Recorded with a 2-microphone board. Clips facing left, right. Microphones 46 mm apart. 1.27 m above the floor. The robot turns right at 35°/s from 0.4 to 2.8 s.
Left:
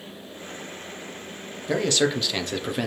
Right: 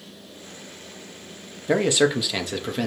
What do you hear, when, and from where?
1.7 s a man speaking: 30° right, 0.6 m; by 2.9 s 10° left, 0.6 m